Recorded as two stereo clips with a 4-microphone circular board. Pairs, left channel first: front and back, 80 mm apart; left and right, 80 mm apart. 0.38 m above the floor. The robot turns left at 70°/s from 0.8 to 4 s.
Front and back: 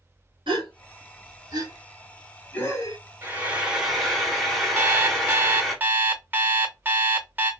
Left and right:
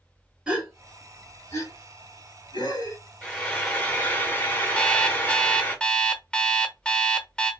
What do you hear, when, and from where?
0.5 s a gasp: 170° right, 1.3 m; by 3.0 s 40° left, 1.3 m
3.2 s frying: 145° left, 1.0 m; by 5.8 s 90° left, 1.0 m
4.8 s an alarm clock: 150° left, 0.6 m